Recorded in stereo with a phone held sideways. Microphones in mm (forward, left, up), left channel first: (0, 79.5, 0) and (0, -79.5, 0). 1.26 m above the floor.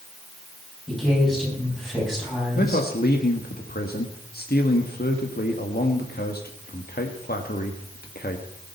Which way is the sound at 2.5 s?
80° left.